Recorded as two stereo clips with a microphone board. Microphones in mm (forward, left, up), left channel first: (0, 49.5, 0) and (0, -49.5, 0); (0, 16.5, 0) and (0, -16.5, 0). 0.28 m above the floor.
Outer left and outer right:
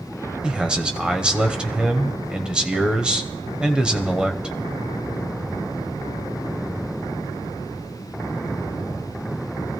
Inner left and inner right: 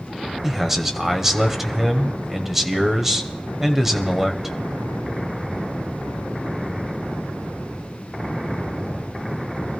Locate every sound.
0.4 s a man speaking: 10° right (ahead or behind), 1.1 m